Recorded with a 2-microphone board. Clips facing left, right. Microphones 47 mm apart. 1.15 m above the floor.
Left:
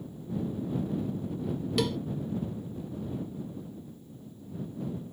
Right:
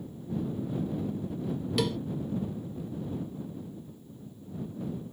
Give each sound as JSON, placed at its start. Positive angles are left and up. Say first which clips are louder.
{"t": 1.8, "sound": "a cowbell", "louder": "even", "side_deg": 0}